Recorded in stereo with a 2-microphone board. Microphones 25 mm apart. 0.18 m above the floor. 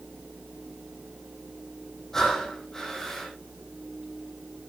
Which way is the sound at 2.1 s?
20° left (ahead or behind).